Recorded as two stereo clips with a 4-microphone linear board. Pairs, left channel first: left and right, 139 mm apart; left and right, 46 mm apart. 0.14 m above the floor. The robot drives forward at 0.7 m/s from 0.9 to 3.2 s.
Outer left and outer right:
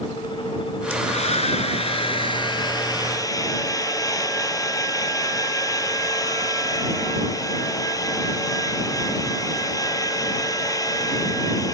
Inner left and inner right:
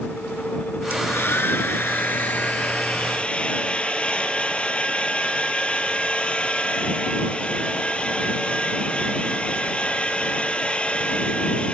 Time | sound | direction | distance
0.9 | a hair dryer | 50° left (ahead or behind) | 0.9 m